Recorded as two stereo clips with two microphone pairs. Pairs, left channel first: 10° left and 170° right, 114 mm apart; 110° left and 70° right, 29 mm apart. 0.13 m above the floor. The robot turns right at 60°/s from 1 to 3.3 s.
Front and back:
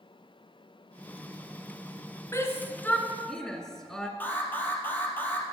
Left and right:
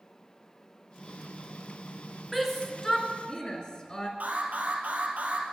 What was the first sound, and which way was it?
A shout, 30° left.